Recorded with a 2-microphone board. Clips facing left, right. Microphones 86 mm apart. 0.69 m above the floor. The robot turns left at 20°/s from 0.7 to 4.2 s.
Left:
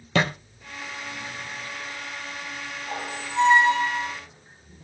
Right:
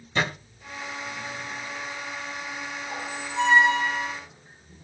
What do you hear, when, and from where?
0.1 s a thud: 80° left, 2.5 m
2.9 s a squeak: 30° left (ahead or behind), 3 m; by 4.2 s 55° left (ahead or behind), 3 m